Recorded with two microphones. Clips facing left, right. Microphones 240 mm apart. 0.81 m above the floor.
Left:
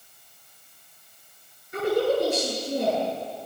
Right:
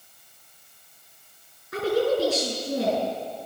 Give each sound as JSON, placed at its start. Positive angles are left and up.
{"t": 1.7, "sound": "a woman speaking", "side_deg": -85, "distance_m": 9.0}